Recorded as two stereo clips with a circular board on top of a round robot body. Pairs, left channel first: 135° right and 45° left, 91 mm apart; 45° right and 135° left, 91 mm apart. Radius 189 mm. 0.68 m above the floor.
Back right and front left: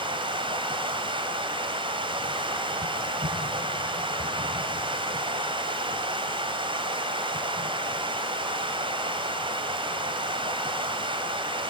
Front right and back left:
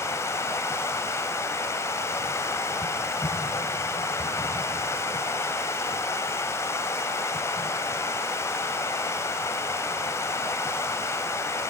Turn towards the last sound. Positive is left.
turn(degrees=15)